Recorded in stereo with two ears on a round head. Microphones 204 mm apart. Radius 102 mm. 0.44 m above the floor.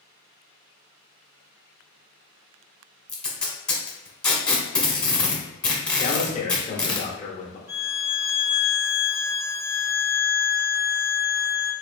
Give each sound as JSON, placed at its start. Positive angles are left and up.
{"t": 3.1, "sound": "tape being pulled", "side_deg": 5, "distance_m": 1.0}
{"t": 6.0, "sound": "a man speaking", "side_deg": 30, "distance_m": 0.9}
{"t": 7.7, "sound": "a violin", "side_deg": -10, "distance_m": 0.6}